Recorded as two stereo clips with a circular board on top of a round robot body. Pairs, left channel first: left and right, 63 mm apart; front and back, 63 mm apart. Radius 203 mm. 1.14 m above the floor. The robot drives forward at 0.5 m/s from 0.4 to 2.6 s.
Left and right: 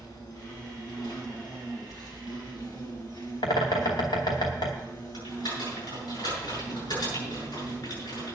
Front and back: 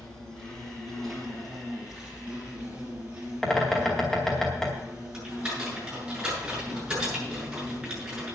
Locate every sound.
0.0 s an insect: 80° left, 2.5 m; by 8.4 s 110° left, 2.5 m
3.4 s a bird: 80° left, 0.8 m
5.1 s typing on a keyboard: 95° left, 7.5 m